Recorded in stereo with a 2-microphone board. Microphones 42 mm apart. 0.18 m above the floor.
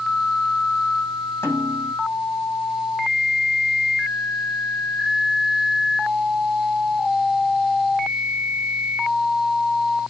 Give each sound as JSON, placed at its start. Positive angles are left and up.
{"t": 1.4, "sound": "a snare drum", "side_deg": 75, "distance_m": 8.5}